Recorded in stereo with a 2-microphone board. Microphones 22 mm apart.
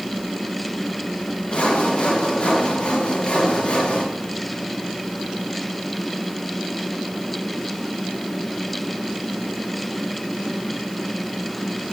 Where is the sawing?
65° left (ahead or behind), 3 m.